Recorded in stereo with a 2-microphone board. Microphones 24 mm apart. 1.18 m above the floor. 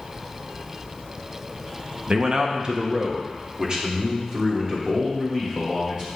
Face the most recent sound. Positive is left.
turn(degrees=-30)  # may be behind; listen again after turning